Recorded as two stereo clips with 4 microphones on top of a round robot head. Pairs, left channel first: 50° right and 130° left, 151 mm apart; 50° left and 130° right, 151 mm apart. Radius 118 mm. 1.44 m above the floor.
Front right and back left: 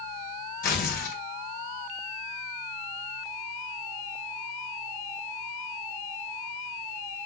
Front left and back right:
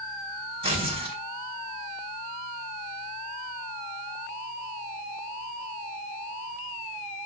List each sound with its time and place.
0.6 s tearing paper: 80° right, 4 m